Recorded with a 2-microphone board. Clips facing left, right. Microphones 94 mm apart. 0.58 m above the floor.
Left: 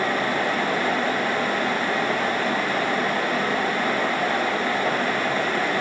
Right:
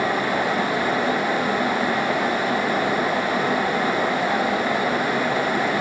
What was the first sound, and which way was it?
Only background noise.